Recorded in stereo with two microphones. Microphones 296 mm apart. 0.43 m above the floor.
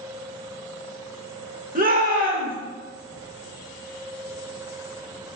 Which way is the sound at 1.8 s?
30° right (ahead or behind).